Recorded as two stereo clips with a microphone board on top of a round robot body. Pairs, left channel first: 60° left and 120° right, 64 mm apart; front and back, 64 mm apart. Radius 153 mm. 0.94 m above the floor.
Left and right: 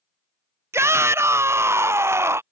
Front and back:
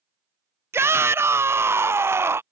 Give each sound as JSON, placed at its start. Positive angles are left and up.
{"t": 0.7, "sound": "a shout", "azimuth_deg": -145}